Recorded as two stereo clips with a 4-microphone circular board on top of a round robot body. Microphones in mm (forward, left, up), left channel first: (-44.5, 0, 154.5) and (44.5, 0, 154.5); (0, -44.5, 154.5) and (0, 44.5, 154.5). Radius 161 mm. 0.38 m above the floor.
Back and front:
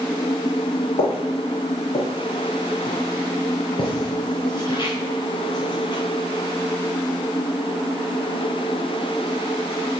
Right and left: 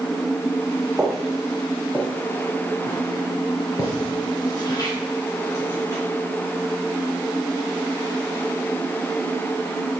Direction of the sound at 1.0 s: 175° left.